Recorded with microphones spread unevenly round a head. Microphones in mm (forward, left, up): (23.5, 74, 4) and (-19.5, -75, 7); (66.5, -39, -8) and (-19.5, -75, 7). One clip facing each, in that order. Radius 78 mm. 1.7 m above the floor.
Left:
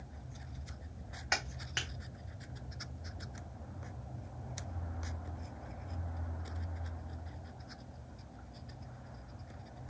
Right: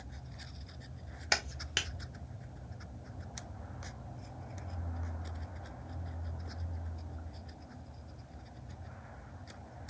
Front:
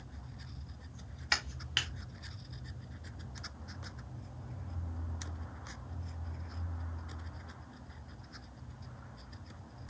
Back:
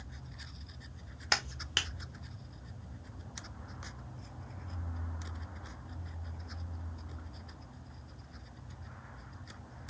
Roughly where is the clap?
Behind right.